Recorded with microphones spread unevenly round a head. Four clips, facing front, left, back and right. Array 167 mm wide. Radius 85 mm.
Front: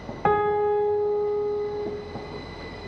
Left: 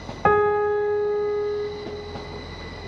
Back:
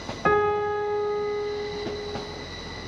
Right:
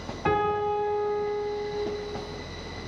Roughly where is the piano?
Left.